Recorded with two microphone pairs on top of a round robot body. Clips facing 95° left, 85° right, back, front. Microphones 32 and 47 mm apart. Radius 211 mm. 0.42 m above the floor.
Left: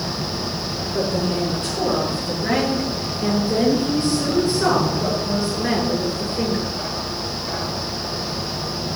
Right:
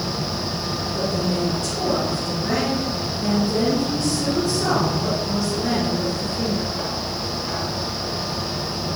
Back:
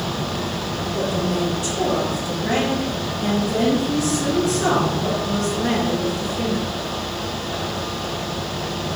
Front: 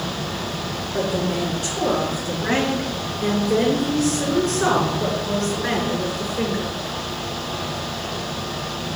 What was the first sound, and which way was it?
A woman speaking, 45° left.